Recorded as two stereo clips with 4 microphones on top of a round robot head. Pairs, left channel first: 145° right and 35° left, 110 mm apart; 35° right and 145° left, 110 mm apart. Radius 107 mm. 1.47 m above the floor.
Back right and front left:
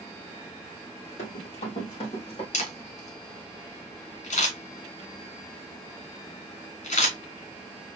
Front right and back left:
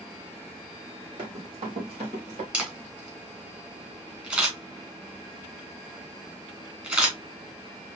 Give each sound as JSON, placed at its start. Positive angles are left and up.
{"t": 1.2, "sound": "running footsteps", "azimuth_deg": -170, "distance_m": 3.0}
{"t": 2.5, "sound": "a camera shutter", "azimuth_deg": -135, "distance_m": 2.0}